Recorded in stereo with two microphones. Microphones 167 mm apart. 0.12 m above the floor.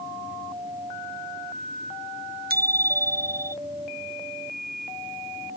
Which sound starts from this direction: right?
A bicycle bell, at 2.5 s.